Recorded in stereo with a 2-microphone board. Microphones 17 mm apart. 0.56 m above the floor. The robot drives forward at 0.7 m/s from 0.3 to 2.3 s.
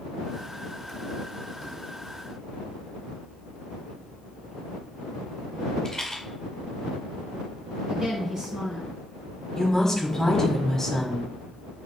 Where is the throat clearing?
No throat clearing in this recording.